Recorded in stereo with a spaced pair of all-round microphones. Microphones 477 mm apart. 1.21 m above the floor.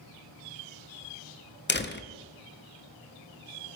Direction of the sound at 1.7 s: 25° left (ahead or behind).